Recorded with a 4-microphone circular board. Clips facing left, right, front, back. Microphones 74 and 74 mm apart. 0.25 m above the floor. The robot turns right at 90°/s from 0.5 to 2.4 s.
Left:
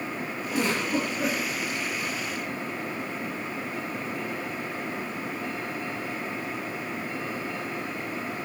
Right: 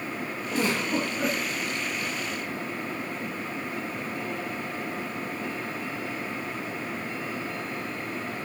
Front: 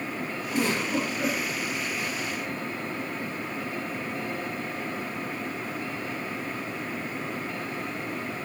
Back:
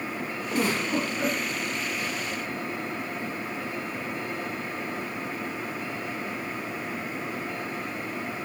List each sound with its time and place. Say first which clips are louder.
0.5 s a giggle: even, even; 165° left, 1.4 m; by 1.4 s 115° right, 1.4 m